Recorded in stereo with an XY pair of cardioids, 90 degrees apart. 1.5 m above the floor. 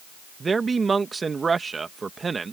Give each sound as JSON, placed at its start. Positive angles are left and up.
{"t": 0.4, "sound": "a man speaking", "azimuth_deg": -35}